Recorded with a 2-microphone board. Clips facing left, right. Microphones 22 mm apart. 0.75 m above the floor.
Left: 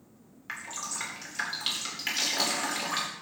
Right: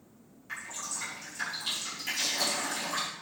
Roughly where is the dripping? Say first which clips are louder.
Left 2 dB; left.